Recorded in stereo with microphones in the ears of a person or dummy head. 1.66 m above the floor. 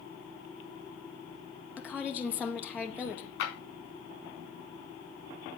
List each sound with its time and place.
1.8 s a woman speaking: 10° left (ahead or behind), 1.8 m
3.4 s a clap: 75° left (ahead or behind), 4 m